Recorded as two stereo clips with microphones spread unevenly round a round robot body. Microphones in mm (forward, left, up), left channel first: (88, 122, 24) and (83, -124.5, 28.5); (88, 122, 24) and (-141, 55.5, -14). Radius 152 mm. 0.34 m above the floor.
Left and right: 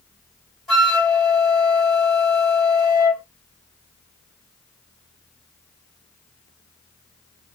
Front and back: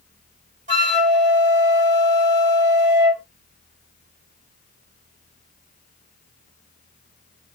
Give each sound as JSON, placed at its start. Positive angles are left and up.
{"t": 0.7, "sound": "a flute", "azimuth_deg": 180, "distance_m": 1.9}